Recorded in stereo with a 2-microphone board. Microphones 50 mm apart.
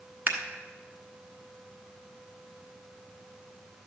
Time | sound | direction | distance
0.3 | scissors | 40° right (ahead or behind) | 1.4 m